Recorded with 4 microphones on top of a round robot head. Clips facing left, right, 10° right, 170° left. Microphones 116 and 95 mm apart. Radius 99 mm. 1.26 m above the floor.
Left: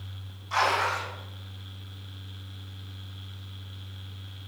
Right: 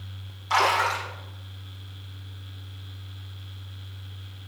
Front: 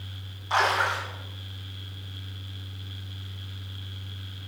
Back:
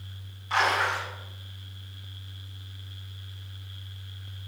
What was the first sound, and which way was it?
A splash, 80° right.